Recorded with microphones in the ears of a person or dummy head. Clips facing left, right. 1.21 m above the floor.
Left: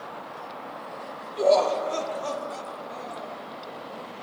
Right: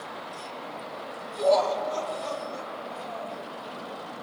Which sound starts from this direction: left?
Laughter, at 1.4 s.